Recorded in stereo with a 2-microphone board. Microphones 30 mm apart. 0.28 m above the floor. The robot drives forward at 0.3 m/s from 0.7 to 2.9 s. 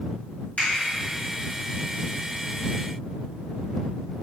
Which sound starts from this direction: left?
A finger snap, at 0.6 s.